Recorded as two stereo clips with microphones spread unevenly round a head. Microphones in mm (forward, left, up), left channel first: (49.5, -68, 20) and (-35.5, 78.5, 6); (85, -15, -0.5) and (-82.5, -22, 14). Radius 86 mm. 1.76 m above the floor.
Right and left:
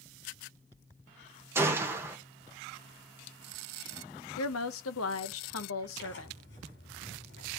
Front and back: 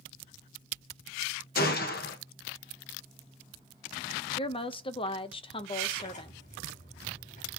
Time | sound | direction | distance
1.6 | a gunshot | 45° left | 1.4 m
4.4 | a woman speaking | 60° right | 0.9 m
6.0 | tearing paper | 45° right | 5 m